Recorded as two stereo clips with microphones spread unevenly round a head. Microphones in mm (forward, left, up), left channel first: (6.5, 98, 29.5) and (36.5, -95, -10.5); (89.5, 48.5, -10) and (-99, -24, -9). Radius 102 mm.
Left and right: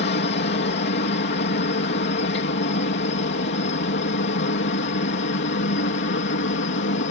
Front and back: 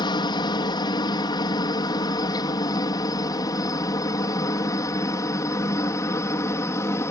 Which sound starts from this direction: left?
A helicopter, at 0.0 s.